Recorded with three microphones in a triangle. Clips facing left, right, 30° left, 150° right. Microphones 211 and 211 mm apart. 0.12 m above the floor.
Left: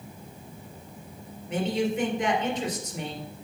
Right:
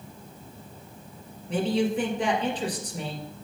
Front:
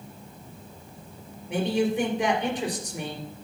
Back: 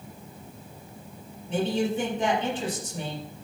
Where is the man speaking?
45° right, 2.5 m.